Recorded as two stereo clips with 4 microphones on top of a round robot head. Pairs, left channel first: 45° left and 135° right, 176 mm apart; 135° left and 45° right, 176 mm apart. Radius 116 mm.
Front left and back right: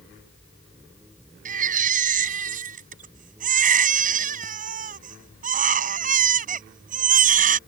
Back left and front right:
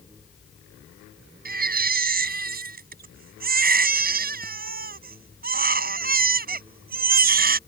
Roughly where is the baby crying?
Right.